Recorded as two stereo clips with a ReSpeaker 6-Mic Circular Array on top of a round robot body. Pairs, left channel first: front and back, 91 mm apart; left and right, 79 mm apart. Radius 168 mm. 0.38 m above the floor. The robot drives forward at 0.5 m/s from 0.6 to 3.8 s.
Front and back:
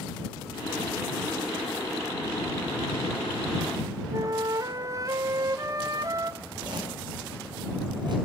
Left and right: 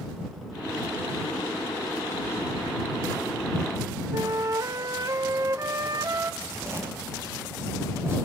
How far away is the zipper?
About 5.5 m.